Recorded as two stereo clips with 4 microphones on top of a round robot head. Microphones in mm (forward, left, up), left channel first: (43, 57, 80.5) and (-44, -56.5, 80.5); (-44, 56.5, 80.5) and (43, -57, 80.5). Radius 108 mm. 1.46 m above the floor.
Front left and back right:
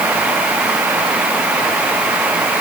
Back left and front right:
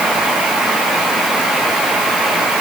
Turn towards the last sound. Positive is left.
No sound to turn to.